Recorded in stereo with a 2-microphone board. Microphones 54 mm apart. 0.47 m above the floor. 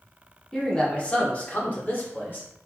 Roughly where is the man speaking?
Centre.